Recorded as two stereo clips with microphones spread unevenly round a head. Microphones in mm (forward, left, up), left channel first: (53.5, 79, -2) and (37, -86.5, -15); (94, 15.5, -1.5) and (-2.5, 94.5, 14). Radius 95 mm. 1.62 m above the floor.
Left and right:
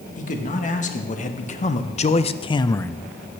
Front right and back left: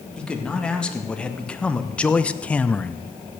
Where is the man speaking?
45° left, 2 m; by 3.4 s 135° right, 0.5 m.